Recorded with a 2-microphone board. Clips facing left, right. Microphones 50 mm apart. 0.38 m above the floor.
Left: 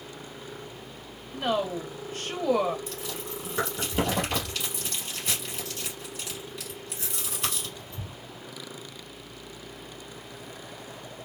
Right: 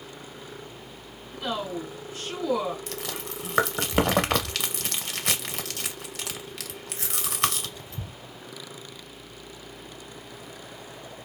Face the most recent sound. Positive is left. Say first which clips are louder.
# right 1 dB
turn(degrees=-80)